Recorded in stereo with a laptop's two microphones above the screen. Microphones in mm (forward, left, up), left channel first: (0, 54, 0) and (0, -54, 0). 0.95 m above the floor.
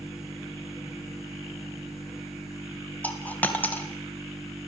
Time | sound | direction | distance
0.0 | a machine running | 5° right (ahead or behind) | 5.5 m
3.0 | a dropped coin | 15° left (ahead or behind) | 3 m